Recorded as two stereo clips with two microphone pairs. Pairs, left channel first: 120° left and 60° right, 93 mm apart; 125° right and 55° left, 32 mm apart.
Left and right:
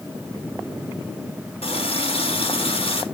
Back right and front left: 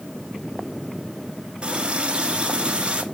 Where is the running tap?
115° left, 1.7 m.